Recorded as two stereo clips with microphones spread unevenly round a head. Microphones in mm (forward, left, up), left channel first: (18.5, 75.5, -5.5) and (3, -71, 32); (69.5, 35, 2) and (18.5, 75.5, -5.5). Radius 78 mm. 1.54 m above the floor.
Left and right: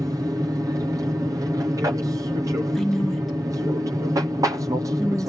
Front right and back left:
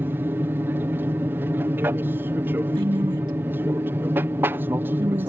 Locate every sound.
0.0 s an aircraft: 170° right
2.8 s a woman speaking: 175° left